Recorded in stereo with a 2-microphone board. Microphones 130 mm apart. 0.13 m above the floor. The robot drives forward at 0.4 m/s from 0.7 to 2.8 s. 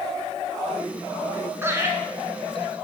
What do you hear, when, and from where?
1.6 s laughter: 20° right (ahead or behind), 1.4 m